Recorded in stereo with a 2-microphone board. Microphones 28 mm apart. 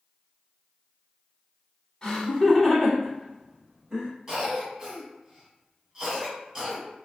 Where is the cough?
20° right (ahead or behind), 1.5 m.